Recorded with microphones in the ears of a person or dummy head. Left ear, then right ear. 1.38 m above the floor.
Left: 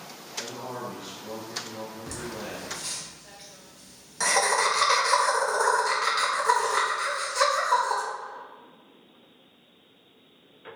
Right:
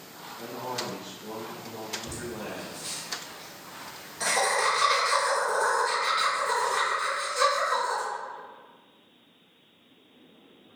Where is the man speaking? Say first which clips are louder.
Right 1 dB; 5° right (ahead or behind), 0.5 m.